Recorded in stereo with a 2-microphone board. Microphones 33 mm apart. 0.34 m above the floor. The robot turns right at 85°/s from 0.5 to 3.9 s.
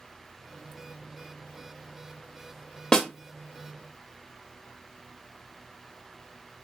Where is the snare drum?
25° left (ahead or behind), 0.6 m; by 3.1 s 20° left (ahead or behind), 0.6 m.